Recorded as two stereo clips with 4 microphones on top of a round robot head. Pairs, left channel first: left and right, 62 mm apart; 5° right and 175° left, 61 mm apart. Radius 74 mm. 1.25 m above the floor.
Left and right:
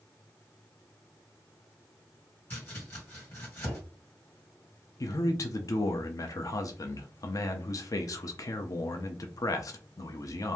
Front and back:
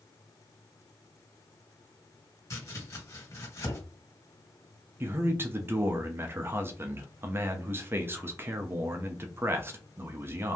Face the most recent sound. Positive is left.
turn(degrees=125)